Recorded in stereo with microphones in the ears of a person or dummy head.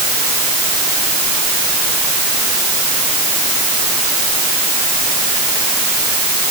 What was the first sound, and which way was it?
Only background noise.